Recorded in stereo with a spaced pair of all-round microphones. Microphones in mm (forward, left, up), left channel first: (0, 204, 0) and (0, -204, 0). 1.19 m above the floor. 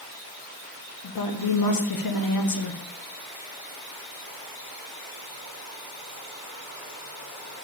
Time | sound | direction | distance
1.0 | a woman speaking | 60° left (ahead or behind) | 0.6 m